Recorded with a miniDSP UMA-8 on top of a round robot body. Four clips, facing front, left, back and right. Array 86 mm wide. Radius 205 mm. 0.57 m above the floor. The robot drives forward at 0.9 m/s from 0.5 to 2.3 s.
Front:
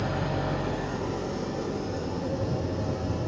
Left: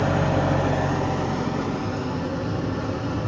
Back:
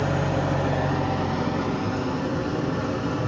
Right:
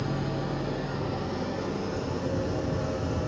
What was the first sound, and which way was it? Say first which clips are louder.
An engine running: left 9 dB, back 5 dB; 115° left.